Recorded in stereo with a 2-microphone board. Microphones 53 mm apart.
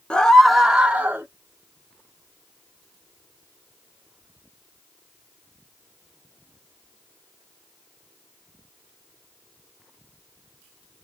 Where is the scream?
20° left (ahead or behind), 0.7 m; by 1.3 s 30° right (ahead or behind), 0.9 m.